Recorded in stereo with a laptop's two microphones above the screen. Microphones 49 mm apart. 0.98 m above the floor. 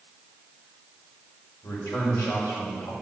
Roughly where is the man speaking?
Left.